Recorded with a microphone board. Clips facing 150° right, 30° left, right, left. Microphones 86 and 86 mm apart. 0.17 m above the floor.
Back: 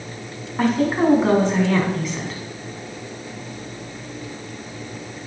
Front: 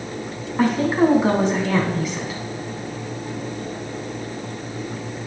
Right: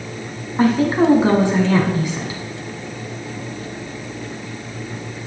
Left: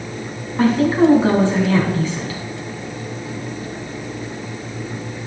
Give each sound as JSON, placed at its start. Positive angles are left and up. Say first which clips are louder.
{"t": 0.6, "sound": "a woman speaking", "louder": "front 1 dB, left 1 dB", "azimuth_deg": -50, "distance_m": 1.0}